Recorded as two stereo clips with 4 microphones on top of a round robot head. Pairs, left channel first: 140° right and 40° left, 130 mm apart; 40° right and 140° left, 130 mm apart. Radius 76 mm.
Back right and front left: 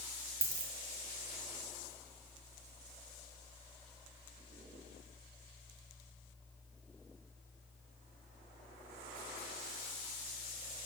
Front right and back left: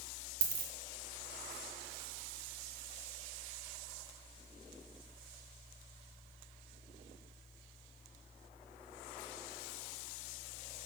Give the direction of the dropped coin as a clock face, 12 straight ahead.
8 o'clock.